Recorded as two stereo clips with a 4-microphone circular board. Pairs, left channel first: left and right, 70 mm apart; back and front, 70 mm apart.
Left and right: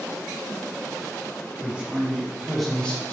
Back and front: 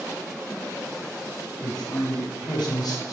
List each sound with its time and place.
1.6 s a man speaking: 160° right, 1.5 m; by 3.1 s 140° left, 0.5 m